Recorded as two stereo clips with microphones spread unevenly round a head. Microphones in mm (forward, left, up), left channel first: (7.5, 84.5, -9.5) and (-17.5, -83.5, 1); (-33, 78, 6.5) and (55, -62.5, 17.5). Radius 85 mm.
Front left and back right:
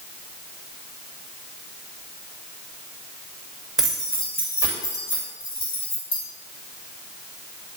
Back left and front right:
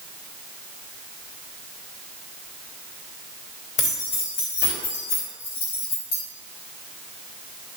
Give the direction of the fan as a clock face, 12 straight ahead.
I don't hear a fan.